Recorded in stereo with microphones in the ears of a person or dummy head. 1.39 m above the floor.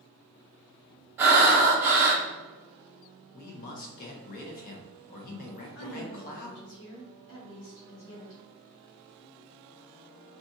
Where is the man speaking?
45° left (ahead or behind), 0.8 m.